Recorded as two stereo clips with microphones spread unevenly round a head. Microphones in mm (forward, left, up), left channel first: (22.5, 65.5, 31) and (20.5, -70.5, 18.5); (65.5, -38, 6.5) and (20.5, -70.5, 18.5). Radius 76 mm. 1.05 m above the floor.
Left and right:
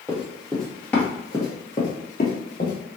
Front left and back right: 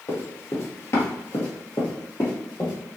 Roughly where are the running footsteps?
Ahead.